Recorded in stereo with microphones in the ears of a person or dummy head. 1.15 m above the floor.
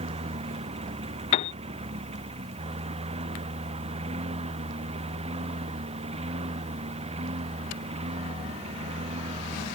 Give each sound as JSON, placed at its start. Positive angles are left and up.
{"t": 0.0, "sound": "a lawn mower", "side_deg": -30}
{"t": 1.3, "sound": "a piano", "side_deg": 35}